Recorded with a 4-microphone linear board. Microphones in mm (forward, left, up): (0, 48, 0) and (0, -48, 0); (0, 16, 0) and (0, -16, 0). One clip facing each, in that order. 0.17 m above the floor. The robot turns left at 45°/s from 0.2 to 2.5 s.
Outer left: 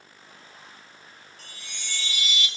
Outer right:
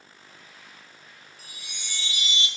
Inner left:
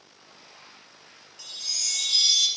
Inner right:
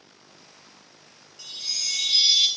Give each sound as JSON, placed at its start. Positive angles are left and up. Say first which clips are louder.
{"t": 1.4, "sound": "a chime", "louder": "outer left 2 dB, inner right 1 dB", "azimuth_deg": -10, "distance_m": 0.8}